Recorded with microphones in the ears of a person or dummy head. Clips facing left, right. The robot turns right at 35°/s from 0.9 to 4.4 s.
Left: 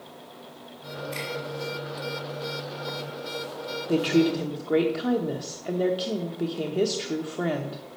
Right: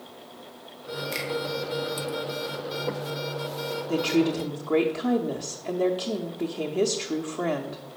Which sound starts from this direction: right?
A finger snap, at 1.1 s.